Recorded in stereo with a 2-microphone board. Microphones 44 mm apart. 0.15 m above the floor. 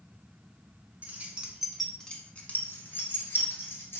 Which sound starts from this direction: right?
Keys jangling, at 1.0 s.